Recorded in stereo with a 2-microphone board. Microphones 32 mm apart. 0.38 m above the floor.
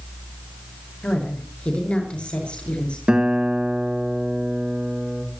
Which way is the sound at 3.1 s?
35° right (ahead or behind).